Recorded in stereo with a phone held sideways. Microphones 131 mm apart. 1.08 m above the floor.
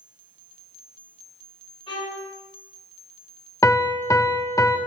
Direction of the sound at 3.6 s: 25° left (ahead or behind).